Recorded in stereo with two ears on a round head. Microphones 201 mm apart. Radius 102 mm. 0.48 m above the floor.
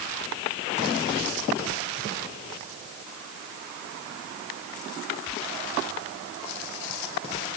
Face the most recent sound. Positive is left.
No sound to turn to.